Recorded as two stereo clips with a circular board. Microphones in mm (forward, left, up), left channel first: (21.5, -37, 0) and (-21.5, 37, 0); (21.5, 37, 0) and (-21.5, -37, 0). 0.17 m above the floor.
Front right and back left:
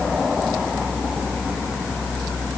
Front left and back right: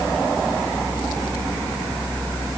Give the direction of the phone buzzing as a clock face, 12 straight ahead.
No phone buzzing in this recording.